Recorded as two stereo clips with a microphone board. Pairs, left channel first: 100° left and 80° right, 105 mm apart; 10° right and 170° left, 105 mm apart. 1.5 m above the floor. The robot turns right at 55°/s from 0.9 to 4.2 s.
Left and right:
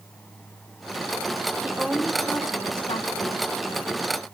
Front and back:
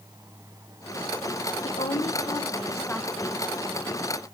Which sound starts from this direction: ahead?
A woman speaking, at 1.6 s.